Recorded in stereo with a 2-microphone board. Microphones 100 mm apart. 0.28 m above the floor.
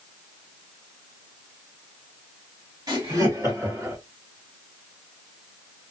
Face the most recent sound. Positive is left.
turn(degrees=-25)  # may be behind; listen again after turning